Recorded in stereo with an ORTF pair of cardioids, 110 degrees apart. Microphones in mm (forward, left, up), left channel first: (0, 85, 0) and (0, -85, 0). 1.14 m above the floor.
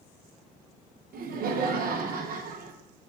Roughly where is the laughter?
Ahead right.